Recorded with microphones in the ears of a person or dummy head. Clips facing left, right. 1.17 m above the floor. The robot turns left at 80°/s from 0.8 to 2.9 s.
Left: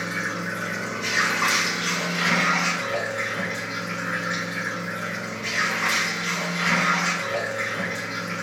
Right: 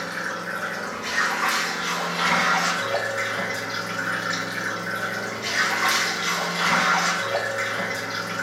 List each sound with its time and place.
0.0 s running water: 130° left, 2.5 m; by 8.4 s 35° right, 2.5 m